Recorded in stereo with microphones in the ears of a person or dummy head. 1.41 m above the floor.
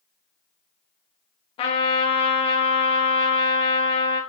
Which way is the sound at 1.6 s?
30° left (ahead or behind).